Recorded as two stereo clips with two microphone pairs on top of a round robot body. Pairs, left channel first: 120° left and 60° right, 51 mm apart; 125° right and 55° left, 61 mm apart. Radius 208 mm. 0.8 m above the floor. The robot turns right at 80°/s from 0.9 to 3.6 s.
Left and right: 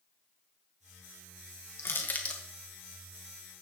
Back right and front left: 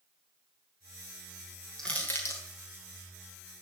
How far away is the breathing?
No breathing in this recording.